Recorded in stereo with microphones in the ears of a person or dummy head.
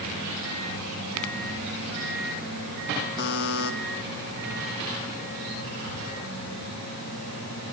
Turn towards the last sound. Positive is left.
turn(degrees=65)  # may be behind; listen again after turning